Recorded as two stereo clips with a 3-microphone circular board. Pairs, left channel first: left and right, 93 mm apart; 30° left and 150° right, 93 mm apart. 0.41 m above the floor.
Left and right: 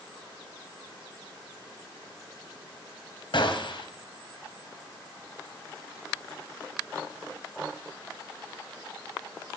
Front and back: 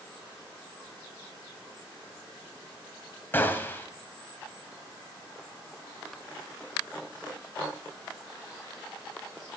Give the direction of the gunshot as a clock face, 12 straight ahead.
9 o'clock.